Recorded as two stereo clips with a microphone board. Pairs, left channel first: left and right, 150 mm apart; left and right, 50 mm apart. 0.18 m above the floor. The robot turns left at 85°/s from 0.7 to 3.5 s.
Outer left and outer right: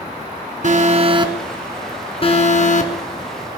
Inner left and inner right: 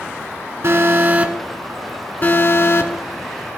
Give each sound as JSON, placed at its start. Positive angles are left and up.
{"t": 0.6, "sound": "an alarm", "azimuth_deg": -100, "distance_m": 1.4}